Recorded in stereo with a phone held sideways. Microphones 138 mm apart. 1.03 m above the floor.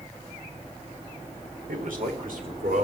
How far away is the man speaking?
About 3 m.